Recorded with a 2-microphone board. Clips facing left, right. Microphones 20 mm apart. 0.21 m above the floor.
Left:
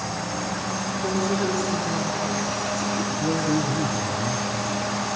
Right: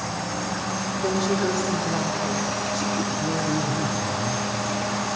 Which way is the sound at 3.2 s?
60° left (ahead or behind).